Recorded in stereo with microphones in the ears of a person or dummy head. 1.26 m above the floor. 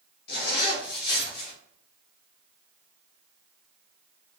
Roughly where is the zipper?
Left.